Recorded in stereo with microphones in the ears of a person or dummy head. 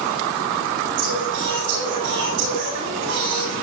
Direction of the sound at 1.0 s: 75° right (ahead or behind).